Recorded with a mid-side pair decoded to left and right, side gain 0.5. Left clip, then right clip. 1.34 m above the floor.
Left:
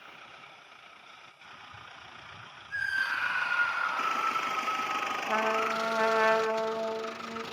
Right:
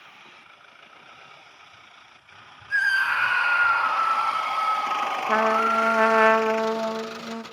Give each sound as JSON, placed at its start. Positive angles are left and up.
{"t": 2.7, "sound": "a scream", "azimuth_deg": -65, "distance_m": 2.5}
{"t": 5.3, "sound": "a trumpet", "azimuth_deg": -45, "distance_m": 2.0}